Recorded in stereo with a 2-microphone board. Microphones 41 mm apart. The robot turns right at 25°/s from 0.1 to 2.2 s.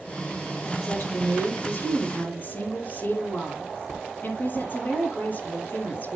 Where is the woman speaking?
100° left, 9 m; by 6.2 s 135° left, 9 m.